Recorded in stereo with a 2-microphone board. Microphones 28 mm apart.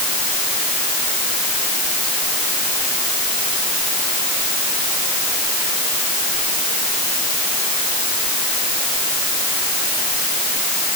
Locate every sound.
Only background noise.